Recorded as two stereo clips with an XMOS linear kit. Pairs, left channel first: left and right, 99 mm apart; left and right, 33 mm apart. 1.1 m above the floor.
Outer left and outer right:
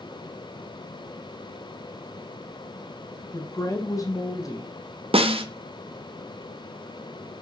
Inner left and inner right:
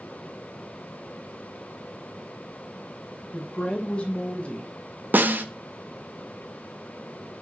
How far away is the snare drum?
About 0.8 m.